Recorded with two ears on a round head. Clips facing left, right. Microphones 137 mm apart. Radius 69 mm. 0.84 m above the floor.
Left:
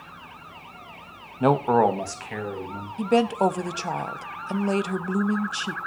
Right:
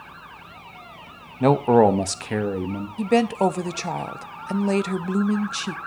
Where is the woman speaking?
5° right (ahead or behind), 0.6 m.